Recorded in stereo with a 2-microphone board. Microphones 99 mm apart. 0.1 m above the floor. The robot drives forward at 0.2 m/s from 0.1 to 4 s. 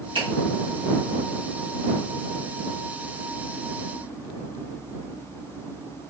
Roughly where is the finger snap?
Right.